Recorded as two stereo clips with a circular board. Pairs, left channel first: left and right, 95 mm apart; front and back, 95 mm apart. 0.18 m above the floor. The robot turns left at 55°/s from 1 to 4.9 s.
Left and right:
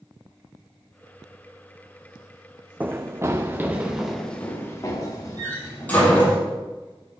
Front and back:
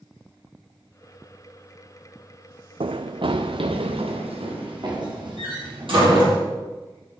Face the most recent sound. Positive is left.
turn(degrees=160)